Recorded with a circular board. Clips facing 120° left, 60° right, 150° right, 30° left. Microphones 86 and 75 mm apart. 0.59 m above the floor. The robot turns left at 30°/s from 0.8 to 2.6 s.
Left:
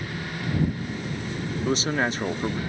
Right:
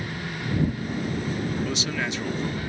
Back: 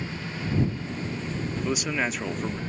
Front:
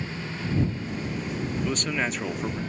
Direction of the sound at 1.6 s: 140° left.